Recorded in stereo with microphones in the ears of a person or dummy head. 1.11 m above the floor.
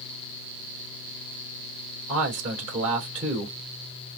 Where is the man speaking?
45° right (ahead or behind), 3 m.